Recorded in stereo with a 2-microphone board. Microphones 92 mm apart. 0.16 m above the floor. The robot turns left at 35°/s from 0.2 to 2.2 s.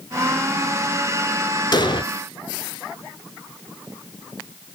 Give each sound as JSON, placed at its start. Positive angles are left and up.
{"t": 1.7, "sound": "an explosion", "side_deg": 45, "distance_m": 0.7}